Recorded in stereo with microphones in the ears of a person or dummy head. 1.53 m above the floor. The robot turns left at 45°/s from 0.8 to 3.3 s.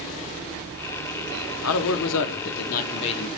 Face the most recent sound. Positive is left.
turn(degrees=25)